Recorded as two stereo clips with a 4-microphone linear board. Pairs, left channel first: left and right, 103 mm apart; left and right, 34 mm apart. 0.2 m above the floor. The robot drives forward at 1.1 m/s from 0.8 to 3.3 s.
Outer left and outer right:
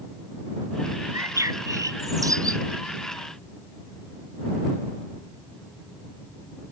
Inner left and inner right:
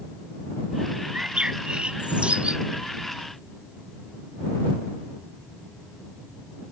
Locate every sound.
1.1 s a bird: 30° right (ahead or behind); by 2.6 s 35° right (ahead or behind)